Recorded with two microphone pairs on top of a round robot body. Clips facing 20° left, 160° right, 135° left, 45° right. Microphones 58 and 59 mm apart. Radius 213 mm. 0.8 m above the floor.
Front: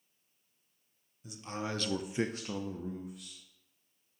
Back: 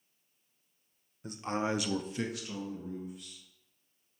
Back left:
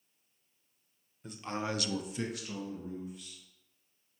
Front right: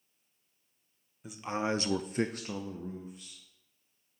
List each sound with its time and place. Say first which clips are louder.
1.2 s a man speaking: back 6 dB, front right 4 dB; 130° right, 0.8 m; by 3.4 s 10° left, 1.2 m